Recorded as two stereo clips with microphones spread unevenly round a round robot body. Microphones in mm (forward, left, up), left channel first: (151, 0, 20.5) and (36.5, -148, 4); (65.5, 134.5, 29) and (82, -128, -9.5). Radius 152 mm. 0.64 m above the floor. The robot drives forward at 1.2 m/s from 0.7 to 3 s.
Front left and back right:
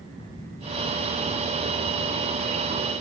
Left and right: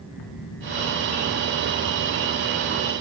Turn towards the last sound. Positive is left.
turn(degrees=150)